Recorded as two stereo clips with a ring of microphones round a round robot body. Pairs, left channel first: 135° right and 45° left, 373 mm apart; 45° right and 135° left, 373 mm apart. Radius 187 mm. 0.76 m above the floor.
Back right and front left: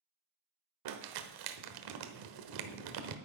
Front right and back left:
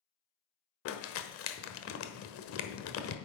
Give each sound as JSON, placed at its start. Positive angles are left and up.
{"t": 0.8, "sound": "crumpling", "azimuth_deg": 10, "distance_m": 1.1}